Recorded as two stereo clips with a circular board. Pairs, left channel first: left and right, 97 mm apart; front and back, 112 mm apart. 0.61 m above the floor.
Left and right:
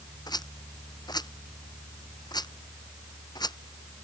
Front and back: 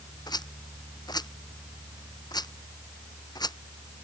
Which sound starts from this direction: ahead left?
A rattle, at 0.3 s.